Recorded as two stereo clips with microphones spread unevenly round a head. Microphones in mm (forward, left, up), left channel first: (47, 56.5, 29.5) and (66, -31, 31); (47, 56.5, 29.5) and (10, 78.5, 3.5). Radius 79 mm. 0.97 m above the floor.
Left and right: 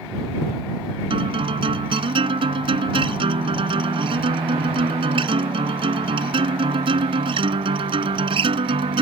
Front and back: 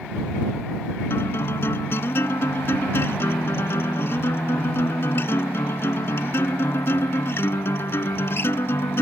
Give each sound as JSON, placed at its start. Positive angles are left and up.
{"t": 1.1, "sound": "a guitar", "azimuth_deg": -55}